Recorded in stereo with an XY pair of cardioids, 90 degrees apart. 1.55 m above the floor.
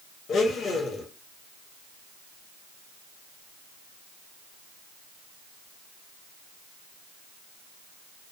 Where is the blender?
70° left, 0.8 m.